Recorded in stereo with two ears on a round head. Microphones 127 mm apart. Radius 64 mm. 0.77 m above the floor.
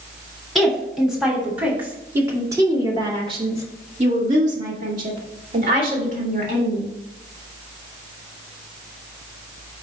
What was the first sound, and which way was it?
A woman speaking, centre (ahead or behind).